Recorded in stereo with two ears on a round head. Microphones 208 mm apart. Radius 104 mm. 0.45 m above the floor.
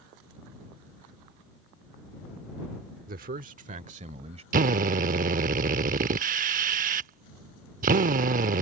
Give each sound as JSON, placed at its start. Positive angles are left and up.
{"t": 3.1, "sound": "a man speaking", "side_deg": -40}
{"t": 4.5, "sound": "a drill", "side_deg": -35}